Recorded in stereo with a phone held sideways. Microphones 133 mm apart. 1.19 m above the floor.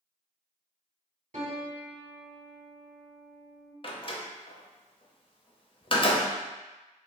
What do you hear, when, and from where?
1.3 s a piano: 60° right (ahead or behind), 1.3 m
3.8 s a door slam: 40° left (ahead or behind), 0.7 m